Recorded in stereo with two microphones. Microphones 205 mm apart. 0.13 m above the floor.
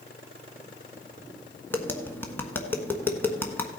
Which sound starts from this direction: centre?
Tapping, at 1.7 s.